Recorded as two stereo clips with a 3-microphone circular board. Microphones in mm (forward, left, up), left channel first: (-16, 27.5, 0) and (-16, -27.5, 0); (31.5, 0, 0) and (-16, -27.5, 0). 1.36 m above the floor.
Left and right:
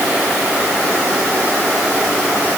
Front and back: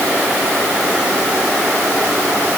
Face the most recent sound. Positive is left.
No sound to turn to.